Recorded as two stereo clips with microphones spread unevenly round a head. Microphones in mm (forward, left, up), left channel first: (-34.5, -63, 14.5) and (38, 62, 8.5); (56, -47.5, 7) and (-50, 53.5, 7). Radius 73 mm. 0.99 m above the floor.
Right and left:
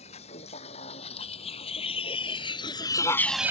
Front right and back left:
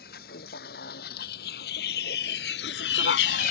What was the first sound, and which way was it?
A vehicle, 70° right.